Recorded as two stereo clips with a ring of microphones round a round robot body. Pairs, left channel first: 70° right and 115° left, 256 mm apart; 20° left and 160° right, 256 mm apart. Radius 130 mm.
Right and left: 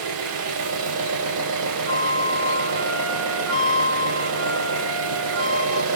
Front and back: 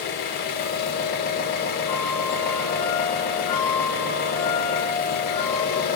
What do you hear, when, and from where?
0.0 s an engine running: 75° left, 0.8 m
1.9 s a flute: 115° left, 2.5 m